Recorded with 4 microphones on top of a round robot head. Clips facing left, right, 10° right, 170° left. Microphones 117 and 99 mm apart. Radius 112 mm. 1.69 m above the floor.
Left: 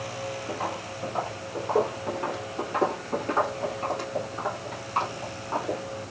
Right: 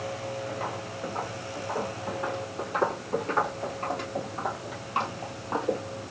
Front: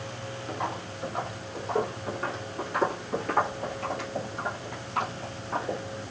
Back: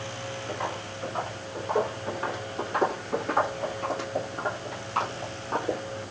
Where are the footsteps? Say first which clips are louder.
Left 2 dB, front 1 dB; 75° left, 2.5 m; by 5.8 s 150° right, 2.0 m.